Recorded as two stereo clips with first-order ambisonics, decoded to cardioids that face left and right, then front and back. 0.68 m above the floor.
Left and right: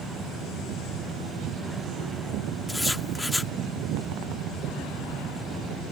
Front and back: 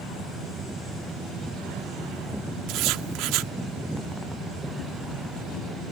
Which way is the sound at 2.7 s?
175° left.